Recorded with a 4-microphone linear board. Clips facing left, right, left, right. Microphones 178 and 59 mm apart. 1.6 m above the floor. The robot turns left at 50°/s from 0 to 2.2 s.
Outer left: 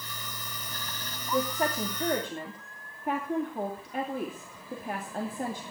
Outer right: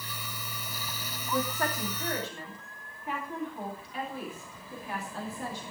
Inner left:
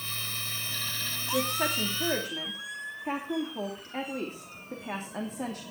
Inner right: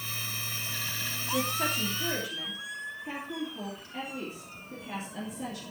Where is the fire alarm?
No fire alarm in this recording.